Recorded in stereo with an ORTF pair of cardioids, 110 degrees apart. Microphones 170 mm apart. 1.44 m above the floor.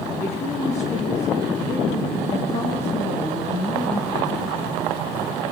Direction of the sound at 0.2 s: 40° left.